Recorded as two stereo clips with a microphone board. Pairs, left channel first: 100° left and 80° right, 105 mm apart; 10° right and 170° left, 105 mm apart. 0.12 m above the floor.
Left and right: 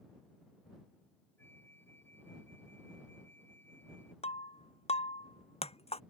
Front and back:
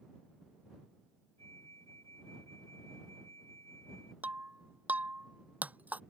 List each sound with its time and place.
1.4 s a flute: 170° left
4.2 s breaking glass: 95° left